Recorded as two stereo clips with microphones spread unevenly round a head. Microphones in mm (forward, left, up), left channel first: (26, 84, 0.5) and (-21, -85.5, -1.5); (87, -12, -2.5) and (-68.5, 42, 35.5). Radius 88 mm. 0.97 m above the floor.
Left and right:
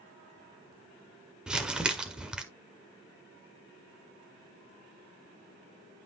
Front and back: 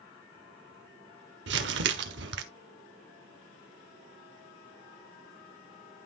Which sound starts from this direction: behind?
Crumpling, at 1.5 s.